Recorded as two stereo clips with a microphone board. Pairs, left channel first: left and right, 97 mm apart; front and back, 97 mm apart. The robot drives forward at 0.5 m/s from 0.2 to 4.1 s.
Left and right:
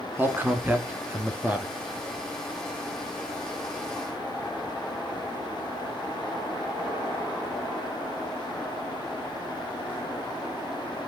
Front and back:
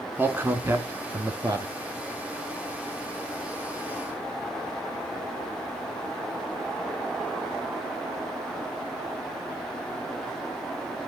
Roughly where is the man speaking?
Behind right.